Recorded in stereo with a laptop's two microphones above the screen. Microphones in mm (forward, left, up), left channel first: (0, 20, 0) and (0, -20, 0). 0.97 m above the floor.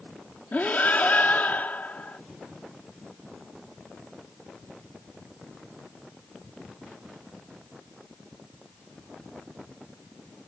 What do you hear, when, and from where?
0.5 s breathing: 45° left (ahead or behind)